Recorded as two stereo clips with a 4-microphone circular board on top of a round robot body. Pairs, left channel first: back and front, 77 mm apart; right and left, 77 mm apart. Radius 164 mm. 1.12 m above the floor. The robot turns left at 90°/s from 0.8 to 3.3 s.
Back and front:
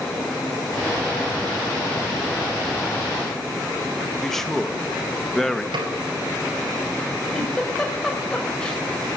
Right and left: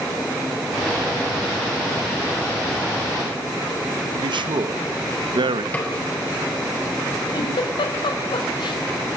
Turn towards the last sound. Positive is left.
turn(degrees=-105)